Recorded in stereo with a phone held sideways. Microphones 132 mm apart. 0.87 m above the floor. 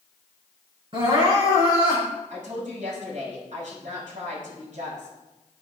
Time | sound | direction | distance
0.9 | crying | 40° right (ahead or behind) | 7 m
2.3 | a woman speaking | 70° right (ahead or behind) | 5.5 m